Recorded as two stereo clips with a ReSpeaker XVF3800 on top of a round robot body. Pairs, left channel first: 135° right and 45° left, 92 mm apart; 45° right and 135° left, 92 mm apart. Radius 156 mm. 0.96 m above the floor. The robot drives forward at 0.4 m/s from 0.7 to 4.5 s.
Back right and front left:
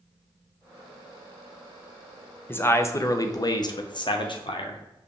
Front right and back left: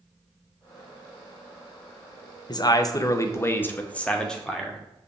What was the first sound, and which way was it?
A man speaking, 70° right.